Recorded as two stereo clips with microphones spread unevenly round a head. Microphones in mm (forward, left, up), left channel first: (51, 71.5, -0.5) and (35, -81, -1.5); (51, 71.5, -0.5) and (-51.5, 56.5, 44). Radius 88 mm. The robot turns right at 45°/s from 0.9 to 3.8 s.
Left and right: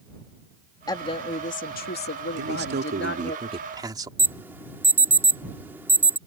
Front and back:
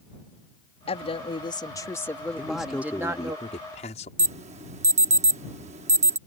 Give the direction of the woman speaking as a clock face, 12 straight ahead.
11 o'clock.